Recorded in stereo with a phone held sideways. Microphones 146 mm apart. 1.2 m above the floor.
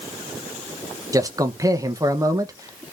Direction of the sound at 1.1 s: 25° right (ahead or behind).